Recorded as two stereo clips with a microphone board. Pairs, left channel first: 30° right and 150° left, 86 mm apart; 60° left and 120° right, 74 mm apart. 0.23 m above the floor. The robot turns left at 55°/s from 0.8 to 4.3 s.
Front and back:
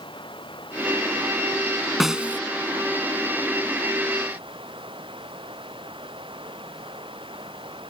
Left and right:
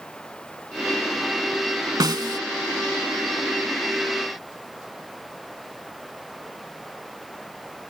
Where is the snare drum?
120° right; by 2.4 s 145° right.